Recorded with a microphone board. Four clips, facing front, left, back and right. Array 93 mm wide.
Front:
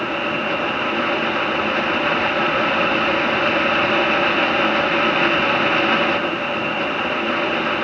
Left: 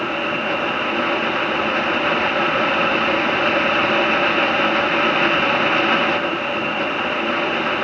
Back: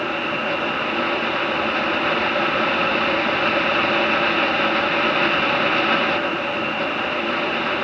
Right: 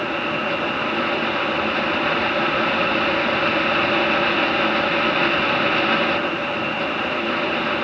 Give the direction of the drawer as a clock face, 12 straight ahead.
I don't hear a drawer.